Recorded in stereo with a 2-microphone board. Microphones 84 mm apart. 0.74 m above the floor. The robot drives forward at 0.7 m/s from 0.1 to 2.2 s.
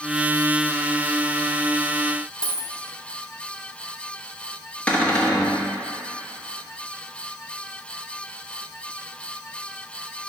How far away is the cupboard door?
About 1.2 m.